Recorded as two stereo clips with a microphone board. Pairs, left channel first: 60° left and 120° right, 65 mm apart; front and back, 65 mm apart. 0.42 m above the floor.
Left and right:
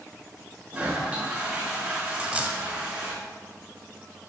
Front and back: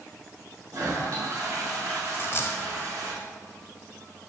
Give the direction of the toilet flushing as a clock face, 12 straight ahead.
6 o'clock.